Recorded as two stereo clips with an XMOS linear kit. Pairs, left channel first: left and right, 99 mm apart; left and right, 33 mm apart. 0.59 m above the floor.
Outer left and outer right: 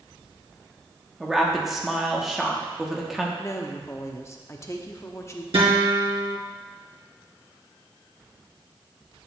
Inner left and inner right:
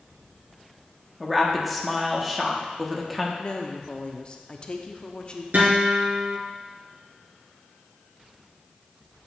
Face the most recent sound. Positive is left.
turn(degrees=-85)